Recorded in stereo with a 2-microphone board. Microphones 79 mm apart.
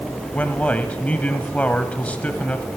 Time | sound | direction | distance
0.3 | a man speaking | 20° left (ahead or behind) | 1.0 m